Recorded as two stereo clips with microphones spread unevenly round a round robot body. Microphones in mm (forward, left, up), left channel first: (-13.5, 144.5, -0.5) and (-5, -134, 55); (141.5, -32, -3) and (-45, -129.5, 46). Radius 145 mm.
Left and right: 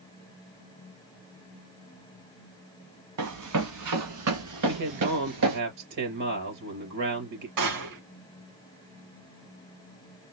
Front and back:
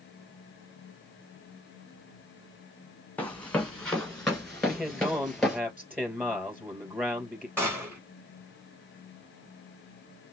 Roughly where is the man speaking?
Ahead right.